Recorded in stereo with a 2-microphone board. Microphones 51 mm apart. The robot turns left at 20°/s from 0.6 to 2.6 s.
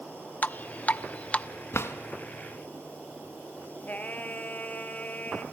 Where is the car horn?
I don't hear a car horn.